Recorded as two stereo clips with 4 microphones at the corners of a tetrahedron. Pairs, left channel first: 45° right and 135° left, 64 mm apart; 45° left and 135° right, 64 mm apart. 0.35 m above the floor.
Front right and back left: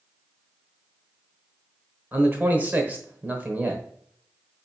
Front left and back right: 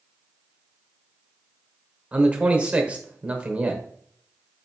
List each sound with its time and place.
2.1 s a man speaking: 165° left, 1.0 m